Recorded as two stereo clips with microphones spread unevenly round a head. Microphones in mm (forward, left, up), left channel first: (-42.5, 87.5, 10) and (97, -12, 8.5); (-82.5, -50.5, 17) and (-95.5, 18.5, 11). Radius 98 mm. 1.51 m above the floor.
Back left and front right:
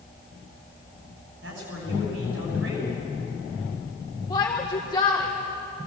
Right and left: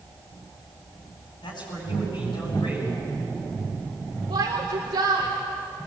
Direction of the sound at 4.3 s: 80° left.